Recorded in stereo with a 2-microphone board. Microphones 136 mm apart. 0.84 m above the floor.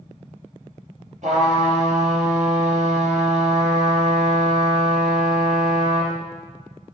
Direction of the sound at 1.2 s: 60° right (ahead or behind).